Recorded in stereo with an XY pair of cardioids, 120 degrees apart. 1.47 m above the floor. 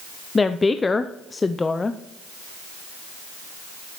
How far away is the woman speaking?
About 0.5 m.